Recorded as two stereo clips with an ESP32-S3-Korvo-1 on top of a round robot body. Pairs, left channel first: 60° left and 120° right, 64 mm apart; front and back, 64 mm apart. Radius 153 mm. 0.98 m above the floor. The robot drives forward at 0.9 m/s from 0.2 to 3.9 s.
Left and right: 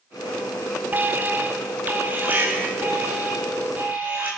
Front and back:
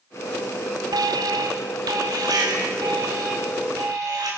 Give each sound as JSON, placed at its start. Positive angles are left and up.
{"t": 0.9, "sound": "an alarm", "azimuth_deg": 180, "distance_m": 0.8}